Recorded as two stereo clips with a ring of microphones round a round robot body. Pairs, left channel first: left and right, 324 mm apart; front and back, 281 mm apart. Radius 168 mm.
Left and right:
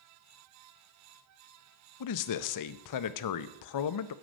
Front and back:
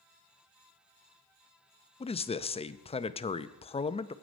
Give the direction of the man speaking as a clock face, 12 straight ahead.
10 o'clock.